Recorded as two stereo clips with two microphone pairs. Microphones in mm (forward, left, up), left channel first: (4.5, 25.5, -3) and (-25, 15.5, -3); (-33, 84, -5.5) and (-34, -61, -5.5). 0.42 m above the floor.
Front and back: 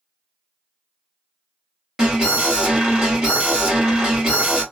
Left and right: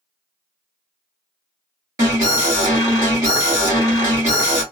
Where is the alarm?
120° right, 2.0 m.